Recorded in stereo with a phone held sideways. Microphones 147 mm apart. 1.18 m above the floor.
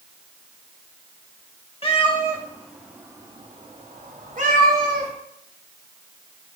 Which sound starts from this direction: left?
A cat meowing, at 1.8 s.